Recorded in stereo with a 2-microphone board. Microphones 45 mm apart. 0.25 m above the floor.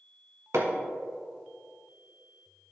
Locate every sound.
0.5 s hammering: 65° right (ahead or behind), 1.3 m